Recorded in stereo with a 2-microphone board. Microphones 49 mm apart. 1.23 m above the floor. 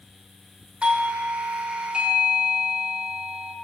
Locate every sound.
0.8 s a doorbell: 20° right (ahead or behind), 0.9 m